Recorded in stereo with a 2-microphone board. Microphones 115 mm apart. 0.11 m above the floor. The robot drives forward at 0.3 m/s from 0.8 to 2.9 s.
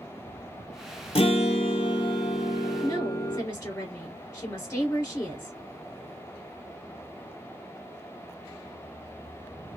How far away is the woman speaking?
About 1.9 m.